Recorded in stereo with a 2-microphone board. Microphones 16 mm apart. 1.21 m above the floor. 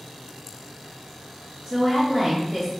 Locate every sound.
1.6 s a woman speaking: 25° right (ahead or behind), 1.4 m